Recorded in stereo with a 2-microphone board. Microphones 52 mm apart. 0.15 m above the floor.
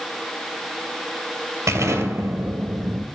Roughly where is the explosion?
Right.